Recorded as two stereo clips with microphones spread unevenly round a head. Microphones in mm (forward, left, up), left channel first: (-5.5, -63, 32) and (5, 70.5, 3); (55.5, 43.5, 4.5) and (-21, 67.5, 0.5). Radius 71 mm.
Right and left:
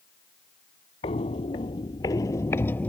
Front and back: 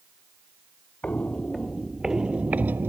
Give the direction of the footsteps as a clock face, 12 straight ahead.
3 o'clock.